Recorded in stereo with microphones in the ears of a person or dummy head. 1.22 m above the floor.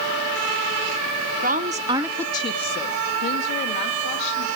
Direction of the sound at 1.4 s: 40° right (ahead or behind).